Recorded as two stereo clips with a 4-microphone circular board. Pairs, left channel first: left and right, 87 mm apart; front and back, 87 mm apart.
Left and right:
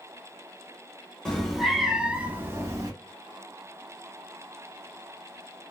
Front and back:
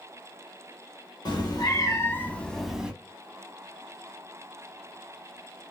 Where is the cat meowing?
10° left, 0.9 m; by 2.9 s 105° right, 0.7 m.